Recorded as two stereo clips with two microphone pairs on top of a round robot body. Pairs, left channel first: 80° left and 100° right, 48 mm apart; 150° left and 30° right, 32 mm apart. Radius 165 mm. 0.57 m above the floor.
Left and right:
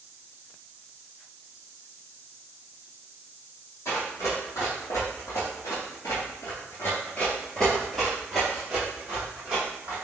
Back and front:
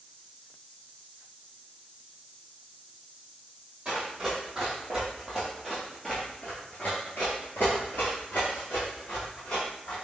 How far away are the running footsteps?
About 1.7 m.